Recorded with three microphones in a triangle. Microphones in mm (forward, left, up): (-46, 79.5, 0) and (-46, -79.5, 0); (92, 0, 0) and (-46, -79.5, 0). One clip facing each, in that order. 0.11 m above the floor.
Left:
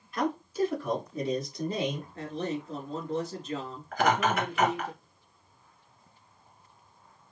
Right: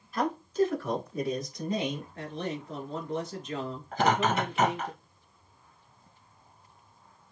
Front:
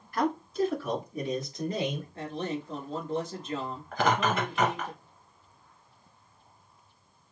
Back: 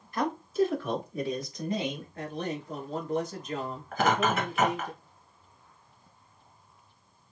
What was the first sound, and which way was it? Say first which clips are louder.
A man speaking: right 2 dB, back 1 dB; 175° right.